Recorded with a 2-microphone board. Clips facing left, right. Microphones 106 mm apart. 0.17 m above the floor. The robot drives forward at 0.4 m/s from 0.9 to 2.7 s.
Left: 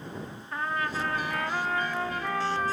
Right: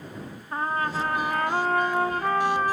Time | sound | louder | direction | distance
0.5 | a trumpet | right 4 dB | 35° right (ahead or behind) | 0.7 m